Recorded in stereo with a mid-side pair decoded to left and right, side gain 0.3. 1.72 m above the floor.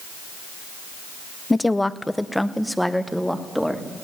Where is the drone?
No drone in this recording.